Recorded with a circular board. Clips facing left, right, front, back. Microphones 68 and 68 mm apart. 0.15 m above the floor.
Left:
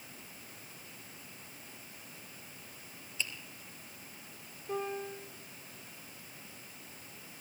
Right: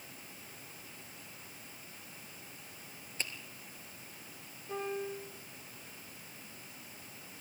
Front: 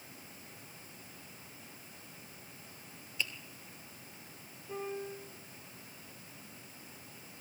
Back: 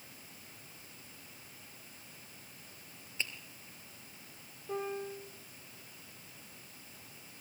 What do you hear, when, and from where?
3.2 s a finger snap: 125° right, 3 m
4.7 s a piano: 150° left, 9.5 m